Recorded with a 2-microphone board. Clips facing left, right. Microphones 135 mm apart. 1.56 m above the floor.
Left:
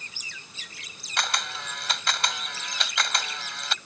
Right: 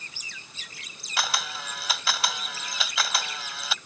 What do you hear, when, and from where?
1.2 s a camera shutter: 5° right (ahead or behind)